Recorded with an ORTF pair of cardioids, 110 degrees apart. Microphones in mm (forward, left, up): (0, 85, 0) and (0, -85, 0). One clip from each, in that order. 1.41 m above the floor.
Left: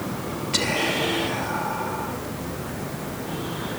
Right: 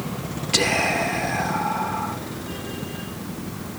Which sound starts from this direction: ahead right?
Whispering, at 0.5 s.